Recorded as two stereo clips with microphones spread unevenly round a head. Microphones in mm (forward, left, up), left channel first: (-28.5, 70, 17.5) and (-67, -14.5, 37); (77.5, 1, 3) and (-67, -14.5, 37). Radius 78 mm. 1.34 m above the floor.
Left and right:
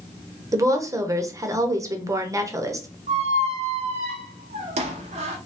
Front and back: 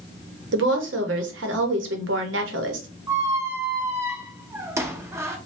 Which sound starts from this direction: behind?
A woman speaking, at 0.5 s.